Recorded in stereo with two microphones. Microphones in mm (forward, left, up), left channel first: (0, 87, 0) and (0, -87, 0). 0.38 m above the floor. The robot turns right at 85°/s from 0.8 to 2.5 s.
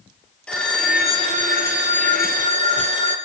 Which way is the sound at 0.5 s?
175° left.